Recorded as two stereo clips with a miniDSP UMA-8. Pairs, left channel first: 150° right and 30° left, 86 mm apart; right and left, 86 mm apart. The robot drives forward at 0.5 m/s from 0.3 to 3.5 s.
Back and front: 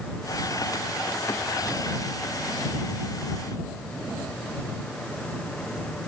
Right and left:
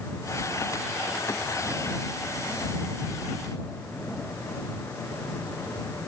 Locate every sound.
Only background noise.